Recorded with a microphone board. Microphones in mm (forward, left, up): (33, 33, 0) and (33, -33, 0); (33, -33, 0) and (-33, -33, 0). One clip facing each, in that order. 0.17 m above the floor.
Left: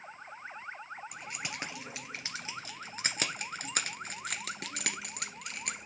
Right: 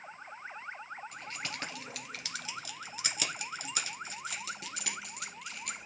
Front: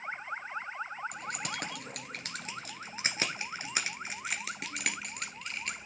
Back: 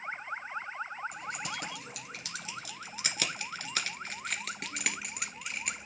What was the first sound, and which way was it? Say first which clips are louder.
Keys jangling: even, even; 15° left.